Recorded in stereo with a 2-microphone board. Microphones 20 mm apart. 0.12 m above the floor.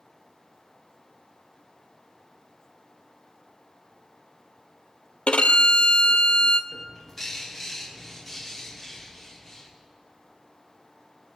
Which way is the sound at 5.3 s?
75° left (ahead or behind).